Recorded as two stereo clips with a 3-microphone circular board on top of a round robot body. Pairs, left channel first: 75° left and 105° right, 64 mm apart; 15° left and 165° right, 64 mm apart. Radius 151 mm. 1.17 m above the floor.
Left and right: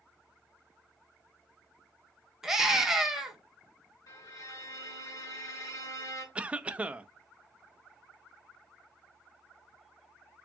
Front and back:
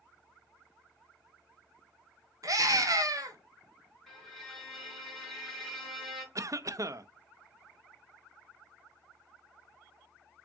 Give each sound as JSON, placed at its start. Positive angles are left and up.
{"t": 2.4, "sound": "a scream", "azimuth_deg": 170, "distance_m": 1.4}
{"t": 4.1, "sound": "a violin", "azimuth_deg": 100, "distance_m": 2.5}
{"t": 6.3, "sound": "a cough", "azimuth_deg": -170, "distance_m": 0.6}